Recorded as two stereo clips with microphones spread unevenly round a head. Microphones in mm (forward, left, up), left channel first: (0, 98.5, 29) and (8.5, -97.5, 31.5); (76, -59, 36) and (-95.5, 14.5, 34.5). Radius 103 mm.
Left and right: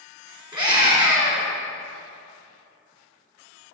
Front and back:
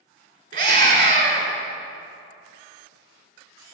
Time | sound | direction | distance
0.5 | a scream | 155° right | 3.5 m